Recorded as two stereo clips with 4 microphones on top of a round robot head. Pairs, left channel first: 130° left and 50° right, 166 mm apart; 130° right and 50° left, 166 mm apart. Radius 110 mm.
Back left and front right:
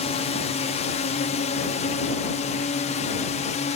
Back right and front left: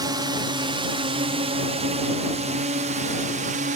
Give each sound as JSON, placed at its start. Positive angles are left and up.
{"t": 0.0, "sound": "a drone", "azimuth_deg": 105}